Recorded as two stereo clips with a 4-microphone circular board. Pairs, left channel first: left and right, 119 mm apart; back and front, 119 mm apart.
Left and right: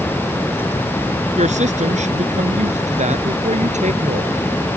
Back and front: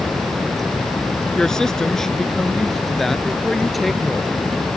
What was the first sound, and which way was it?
A woman speaking, 95° right.